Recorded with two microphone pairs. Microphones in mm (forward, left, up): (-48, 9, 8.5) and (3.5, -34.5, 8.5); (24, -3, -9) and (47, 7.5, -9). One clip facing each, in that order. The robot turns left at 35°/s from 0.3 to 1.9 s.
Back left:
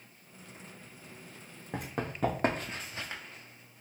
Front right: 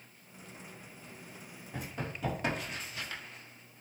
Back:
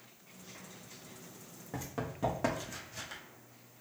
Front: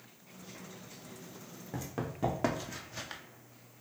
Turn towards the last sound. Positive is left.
turn(degrees=70)